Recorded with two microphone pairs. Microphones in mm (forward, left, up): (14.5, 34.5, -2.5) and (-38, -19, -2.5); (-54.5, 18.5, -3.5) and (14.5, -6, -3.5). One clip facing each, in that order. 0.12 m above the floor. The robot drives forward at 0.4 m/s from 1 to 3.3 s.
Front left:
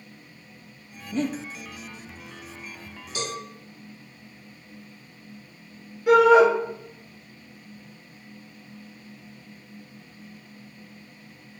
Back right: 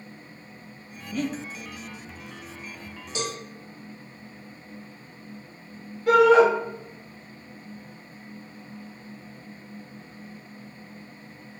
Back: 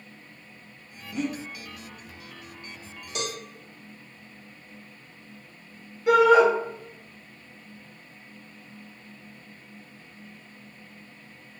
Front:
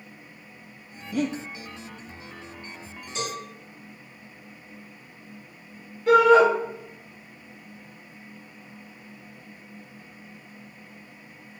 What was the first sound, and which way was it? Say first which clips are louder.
Breathing: front left 2 dB, front 3 dB; 15° right.